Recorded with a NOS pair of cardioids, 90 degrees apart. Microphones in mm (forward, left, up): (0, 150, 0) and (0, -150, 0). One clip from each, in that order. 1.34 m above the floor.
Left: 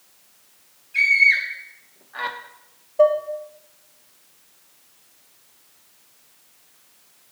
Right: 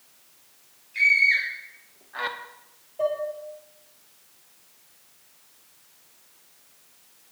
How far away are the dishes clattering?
About 1.4 m.